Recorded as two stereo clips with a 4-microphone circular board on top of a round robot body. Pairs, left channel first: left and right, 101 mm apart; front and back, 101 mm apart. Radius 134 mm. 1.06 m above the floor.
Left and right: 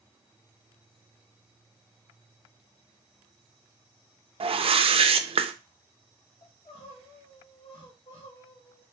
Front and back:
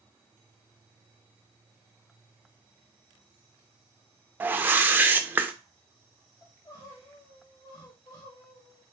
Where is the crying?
55° left, 1.2 m.